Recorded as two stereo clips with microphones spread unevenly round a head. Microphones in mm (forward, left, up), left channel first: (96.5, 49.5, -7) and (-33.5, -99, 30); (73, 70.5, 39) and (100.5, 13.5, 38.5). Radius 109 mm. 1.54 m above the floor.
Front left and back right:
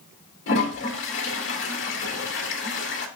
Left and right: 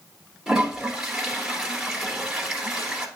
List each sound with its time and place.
0.5 s a toilet flushing: 20° left, 3 m